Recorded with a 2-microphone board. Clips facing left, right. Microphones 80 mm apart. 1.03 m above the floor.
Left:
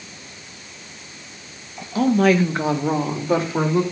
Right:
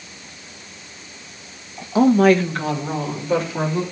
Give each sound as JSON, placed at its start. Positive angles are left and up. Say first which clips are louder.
{"t": 1.9, "sound": "a woman speaking", "louder": "right 3 dB", "side_deg": -30, "distance_m": 0.7}